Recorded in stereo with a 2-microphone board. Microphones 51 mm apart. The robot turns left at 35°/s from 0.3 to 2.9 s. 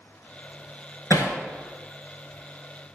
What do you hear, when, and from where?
1.1 s hammering: 80° left, 3 m; by 1.4 s 75° left (ahead or behind), 3 m